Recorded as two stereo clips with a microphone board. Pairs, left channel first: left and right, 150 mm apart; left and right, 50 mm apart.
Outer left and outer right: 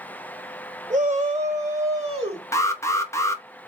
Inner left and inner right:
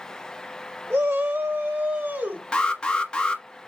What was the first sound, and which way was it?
A shout, 60° right (ahead or behind).